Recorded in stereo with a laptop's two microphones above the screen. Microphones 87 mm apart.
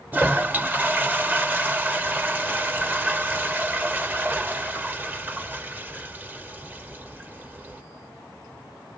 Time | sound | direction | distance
0.1 | a toilet flushing | 20° right (ahead or behind) | 1.0 m